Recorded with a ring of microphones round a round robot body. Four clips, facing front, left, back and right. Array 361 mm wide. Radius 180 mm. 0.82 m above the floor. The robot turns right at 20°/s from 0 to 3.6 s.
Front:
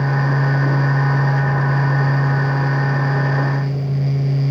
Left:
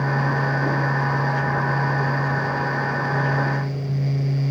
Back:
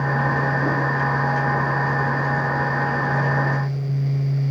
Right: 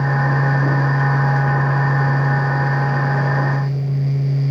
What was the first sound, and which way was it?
Only background noise.